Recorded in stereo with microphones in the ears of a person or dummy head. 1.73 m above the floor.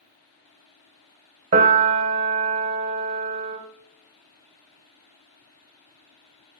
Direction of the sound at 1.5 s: 40° right (ahead or behind).